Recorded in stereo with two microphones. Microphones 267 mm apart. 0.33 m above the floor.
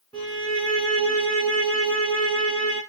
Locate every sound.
0.1 s a violin: 15° left (ahead or behind), 1.3 m